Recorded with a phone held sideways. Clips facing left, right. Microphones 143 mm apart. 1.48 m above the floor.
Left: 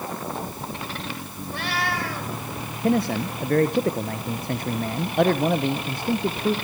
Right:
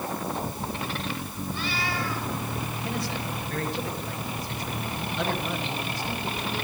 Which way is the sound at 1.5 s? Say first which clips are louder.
Left 4 dB; 70° left (ahead or behind).